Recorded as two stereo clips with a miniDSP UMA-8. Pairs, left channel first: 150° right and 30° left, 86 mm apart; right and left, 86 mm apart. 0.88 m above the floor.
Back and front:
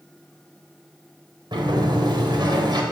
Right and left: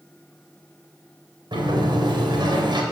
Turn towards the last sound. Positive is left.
turn(degrees=60)